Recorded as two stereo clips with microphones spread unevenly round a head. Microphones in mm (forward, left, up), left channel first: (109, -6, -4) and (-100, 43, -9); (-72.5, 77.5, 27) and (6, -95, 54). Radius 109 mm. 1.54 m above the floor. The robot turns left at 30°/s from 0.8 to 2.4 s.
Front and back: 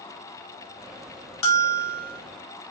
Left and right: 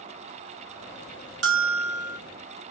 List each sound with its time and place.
1.4 s a bell: 25° right, 1.1 m; by 2.2 s 50° right, 1.1 m